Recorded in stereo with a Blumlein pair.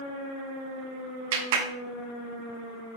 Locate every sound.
1.3 s a clap: 50° right, 1.3 m